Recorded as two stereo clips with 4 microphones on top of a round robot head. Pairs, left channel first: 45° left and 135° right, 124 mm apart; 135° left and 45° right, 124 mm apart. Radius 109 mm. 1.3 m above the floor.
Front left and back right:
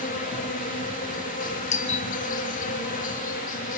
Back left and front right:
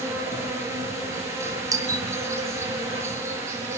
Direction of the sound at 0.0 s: 25° left.